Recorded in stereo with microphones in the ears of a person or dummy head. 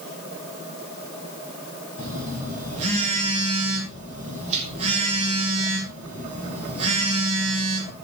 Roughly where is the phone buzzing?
Right.